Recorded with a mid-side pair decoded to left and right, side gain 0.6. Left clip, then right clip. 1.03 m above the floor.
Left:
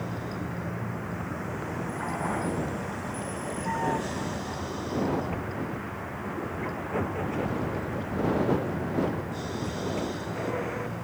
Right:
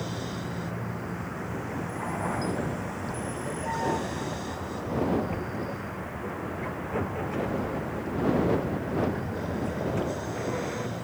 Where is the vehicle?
5° left; by 11.0 s 10° left.